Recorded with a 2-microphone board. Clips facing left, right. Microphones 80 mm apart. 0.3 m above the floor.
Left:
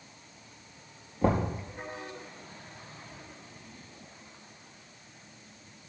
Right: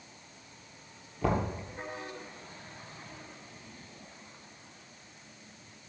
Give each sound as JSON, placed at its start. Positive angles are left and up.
{"t": 1.2, "sound": "knocking", "side_deg": 30, "distance_m": 4.5}